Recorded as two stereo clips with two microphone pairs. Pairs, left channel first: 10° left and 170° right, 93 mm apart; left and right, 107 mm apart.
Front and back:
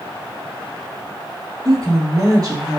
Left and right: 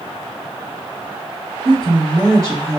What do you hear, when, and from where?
1.6 s a woman speaking: 125° right, 2.5 m; by 2.8 s 140° right, 2.5 m